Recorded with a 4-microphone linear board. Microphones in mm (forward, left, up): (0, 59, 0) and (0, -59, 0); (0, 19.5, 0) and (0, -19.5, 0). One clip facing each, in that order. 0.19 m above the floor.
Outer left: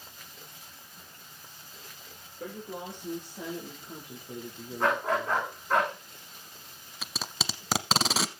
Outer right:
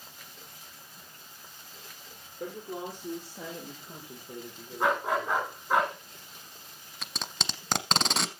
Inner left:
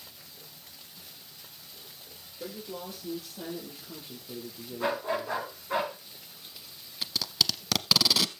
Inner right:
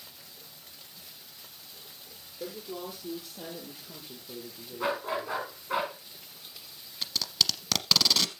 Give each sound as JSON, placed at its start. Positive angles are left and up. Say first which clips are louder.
{"t": 2.4, "sound": "a woman speaking", "louder": "outer right 2 dB, inner right 1 dB", "side_deg": -10, "distance_m": 4.0}
{"t": 4.8, "sound": "a dog barking", "louder": "even, inner left 1 dB", "side_deg": -10, "distance_m": 5.0}
{"t": 7.0, "sound": "tape being pulled", "louder": "outer left 1 dB, even", "side_deg": 5, "distance_m": 0.8}